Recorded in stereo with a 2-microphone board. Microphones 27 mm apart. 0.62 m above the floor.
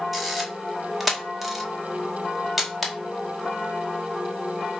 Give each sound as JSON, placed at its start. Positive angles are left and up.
{"t": 0.1, "sound": "a camera shutter", "side_deg": 0, "distance_m": 2.0}